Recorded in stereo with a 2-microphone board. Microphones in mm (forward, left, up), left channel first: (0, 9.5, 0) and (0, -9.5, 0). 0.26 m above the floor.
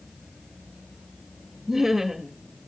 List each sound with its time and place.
1.7 s laughter: 20° right (ahead or behind), 1.2 m